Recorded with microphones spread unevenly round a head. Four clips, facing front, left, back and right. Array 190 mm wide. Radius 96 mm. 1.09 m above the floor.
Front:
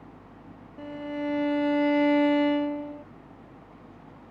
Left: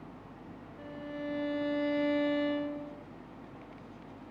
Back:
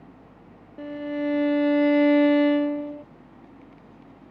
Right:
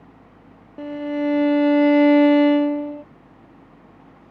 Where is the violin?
105° right.